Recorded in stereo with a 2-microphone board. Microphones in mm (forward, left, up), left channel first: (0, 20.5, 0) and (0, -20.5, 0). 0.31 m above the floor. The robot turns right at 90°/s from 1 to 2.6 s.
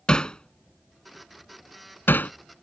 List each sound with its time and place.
0.1 s hammering: 20° left (ahead or behind); by 2.3 s 40° left (ahead or behind)